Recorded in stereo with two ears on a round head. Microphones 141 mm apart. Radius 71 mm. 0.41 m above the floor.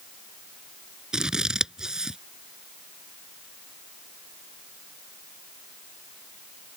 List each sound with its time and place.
1.1 s scissors: 5° right (ahead or behind)